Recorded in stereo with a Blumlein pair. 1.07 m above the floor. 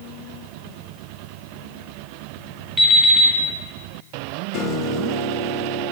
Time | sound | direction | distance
2.8 | an alarm clock | straight ahead | 2.5 m
4.5 | a piano | 35° left | 0.6 m